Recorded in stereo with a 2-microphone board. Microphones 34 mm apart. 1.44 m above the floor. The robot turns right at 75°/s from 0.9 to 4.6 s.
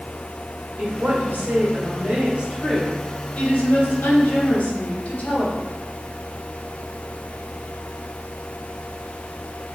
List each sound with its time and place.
0.8 s a woman speaking: 140° right, 1.9 m; by 5.6 s 140° left, 1.9 m